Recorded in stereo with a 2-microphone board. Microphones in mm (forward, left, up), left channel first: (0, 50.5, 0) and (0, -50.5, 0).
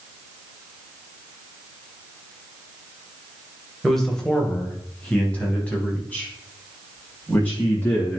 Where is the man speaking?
Centre (ahead or behind), 2 m; by 8.2 s 20° left (ahead or behind), 6 m.